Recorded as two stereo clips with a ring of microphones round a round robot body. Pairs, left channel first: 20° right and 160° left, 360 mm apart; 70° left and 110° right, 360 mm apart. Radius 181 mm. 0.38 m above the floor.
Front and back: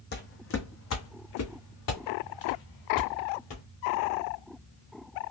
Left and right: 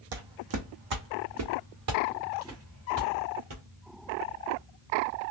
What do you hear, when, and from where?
0.1 s footsteps: 85° right, 1.0 m; by 3.6 s 55° right, 2.5 m